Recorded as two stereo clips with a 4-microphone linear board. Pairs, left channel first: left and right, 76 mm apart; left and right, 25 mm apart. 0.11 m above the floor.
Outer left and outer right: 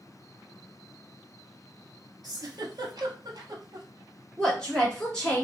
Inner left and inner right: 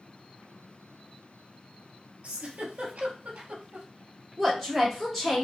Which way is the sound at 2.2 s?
60° right (ahead or behind).